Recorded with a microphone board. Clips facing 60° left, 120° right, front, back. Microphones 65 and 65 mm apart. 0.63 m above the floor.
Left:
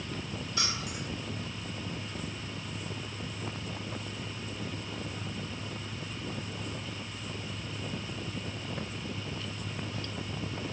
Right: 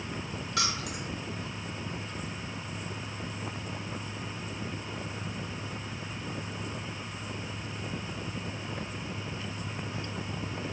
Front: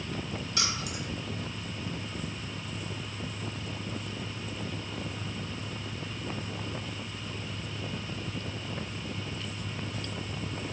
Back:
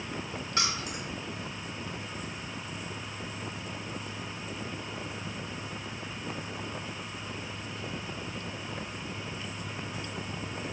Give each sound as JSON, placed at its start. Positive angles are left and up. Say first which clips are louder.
{"t": 0.6, "sound": "keys jangling", "louder": "right 4 dB, back 3 dB", "azimuth_deg": -125, "distance_m": 1.0}